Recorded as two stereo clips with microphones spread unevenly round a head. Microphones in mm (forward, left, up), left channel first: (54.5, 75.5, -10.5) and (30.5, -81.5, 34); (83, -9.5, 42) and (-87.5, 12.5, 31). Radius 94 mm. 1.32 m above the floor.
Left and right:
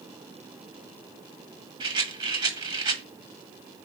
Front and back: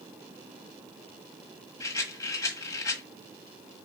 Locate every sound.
1.8 s a rattle: 70° right, 1.5 m